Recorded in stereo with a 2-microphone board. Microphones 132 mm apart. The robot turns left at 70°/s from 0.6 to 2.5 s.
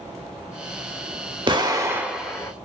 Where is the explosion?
125° right, 0.7 m; by 2.5 s 160° left, 0.7 m.